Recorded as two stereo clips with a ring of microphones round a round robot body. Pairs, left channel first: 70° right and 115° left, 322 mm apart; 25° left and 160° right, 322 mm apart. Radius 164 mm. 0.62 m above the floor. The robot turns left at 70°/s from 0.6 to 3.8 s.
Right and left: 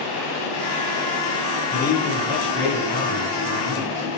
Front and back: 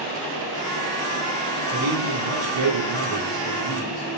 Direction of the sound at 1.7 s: 135° right.